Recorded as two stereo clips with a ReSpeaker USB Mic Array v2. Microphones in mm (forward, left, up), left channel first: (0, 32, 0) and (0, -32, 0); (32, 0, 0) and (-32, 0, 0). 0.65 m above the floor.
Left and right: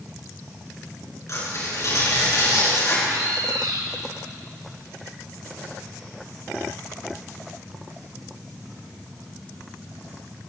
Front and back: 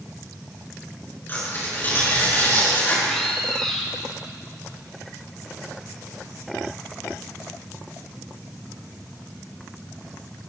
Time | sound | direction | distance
1.3 | tearing paper | 55° left | 6.5 m
3.0 | a bird | 85° right | 2 m